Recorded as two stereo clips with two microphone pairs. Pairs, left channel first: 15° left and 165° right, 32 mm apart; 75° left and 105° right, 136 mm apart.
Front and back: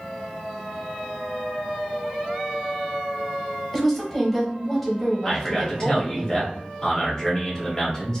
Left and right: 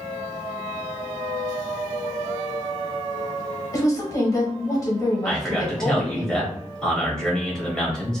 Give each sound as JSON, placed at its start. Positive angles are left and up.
{"t": 3.7, "sound": "a woman speaking", "azimuth_deg": 105, "distance_m": 1.0}
{"t": 5.2, "sound": "a man speaking", "azimuth_deg": 5, "distance_m": 0.9}